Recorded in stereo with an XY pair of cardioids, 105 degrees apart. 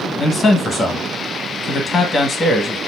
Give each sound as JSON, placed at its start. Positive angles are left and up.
{"t": 0.2, "sound": "a man speaking", "azimuth_deg": 40, "distance_m": 1.0}